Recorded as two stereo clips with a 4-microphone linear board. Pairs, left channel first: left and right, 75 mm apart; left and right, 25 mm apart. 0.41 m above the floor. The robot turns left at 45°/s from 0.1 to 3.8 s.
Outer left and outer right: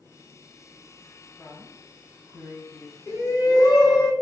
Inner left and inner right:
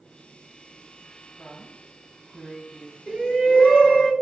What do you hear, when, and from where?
1.4 s a woman speaking: 160° left, 2.5 m; by 3.0 s 90° left, 2.5 m
3.1 s a shout: 140° left, 3.5 m; by 4.1 s 105° left, 3.5 m